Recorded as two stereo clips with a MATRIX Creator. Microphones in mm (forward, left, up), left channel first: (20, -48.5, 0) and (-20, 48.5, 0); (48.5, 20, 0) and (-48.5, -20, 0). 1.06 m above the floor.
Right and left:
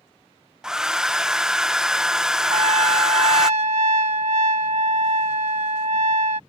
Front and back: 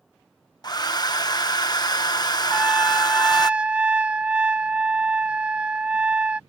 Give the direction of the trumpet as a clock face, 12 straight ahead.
8 o'clock.